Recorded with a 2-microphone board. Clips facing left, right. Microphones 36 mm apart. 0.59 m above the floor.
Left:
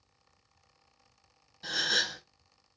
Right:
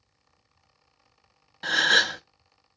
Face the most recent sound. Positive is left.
turn(degrees=-60)  # may be behind; listen again after turning